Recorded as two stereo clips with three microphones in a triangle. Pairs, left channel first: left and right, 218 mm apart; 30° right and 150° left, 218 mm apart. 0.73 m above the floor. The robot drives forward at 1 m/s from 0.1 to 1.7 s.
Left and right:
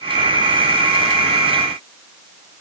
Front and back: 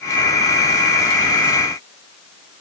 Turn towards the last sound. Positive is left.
No sound to turn to.